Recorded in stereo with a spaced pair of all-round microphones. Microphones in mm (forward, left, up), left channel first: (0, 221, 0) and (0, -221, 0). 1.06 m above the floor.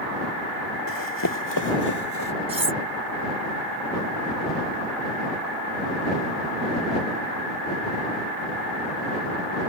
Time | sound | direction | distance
0.9 | running footsteps | 45° left (ahead or behind) | ?
2.5 | cutlery clinking | 75° right (ahead or behind) | ?